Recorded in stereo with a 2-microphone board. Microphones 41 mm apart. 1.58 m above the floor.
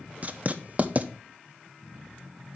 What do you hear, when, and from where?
0.2 s writing: 35° right (ahead or behind), 0.7 m